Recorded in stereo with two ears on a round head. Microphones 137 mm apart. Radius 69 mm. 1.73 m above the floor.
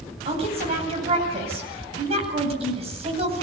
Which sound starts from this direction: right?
A woman speaking, at 0.2 s.